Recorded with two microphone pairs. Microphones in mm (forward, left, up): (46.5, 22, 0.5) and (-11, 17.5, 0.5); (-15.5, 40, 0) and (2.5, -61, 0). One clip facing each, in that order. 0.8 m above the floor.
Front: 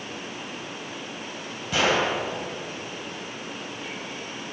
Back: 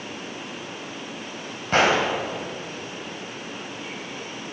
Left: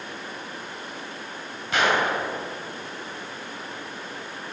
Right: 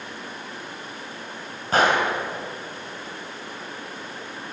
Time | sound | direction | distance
1.7 | a gunshot | 130° right | 4.5 m